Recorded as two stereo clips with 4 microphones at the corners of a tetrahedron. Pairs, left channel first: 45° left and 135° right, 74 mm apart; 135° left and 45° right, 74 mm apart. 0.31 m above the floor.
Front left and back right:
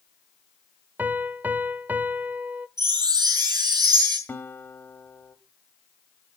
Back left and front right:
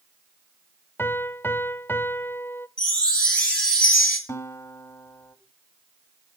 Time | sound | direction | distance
1.0 | a piano | 175° left | 0.6 m
2.8 | a chime | 150° right | 4.5 m
4.3 | a guitar | 100° left | 1.3 m